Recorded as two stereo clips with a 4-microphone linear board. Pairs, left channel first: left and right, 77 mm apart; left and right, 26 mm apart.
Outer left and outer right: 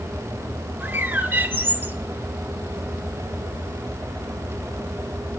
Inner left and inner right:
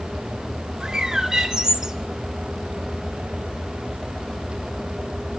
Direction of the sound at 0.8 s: 30° right (ahead or behind).